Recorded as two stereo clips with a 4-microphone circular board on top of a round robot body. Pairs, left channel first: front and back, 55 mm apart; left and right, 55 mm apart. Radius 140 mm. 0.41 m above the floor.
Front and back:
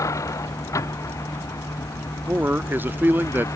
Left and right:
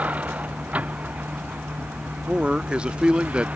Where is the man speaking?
150° right.